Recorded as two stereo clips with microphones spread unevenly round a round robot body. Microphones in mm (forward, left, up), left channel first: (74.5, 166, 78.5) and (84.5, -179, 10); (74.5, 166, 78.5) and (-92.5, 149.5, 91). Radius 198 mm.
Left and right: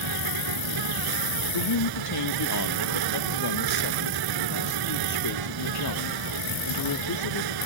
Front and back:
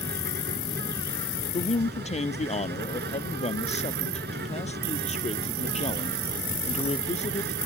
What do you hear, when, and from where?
0.0 s an insect: 125° right
1.5 s a man speaking: 55° left